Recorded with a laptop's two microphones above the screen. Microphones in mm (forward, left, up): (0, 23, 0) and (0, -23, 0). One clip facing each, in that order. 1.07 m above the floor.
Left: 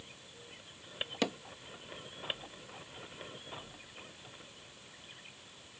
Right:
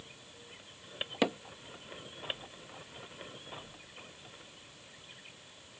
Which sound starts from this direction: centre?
Hammering, at 1.2 s.